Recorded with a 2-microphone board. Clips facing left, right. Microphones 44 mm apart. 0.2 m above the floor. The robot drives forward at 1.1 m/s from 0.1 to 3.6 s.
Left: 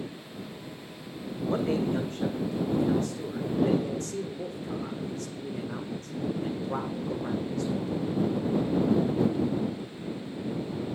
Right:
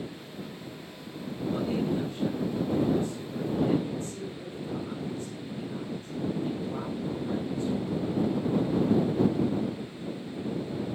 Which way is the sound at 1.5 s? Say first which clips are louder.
Left 2 dB; 60° left (ahead or behind).